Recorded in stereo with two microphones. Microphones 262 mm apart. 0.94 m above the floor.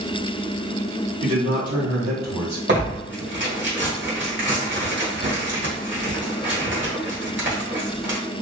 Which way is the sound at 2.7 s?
45° right (ahead or behind).